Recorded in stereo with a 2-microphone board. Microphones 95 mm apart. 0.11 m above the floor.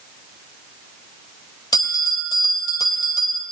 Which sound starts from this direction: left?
A bell, at 1.7 s.